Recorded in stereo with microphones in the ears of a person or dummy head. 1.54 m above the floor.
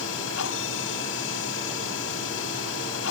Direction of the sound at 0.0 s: 75° left (ahead or behind).